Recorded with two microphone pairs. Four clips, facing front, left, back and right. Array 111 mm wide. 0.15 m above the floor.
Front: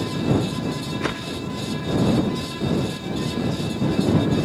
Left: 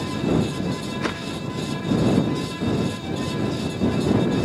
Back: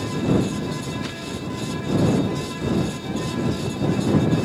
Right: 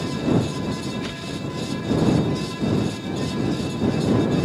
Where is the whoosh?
45° left.